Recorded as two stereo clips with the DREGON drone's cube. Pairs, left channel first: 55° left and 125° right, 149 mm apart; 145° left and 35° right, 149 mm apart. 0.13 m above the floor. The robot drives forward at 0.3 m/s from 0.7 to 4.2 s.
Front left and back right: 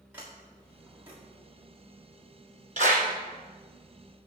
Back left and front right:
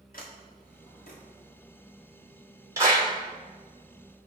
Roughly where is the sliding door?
Behind.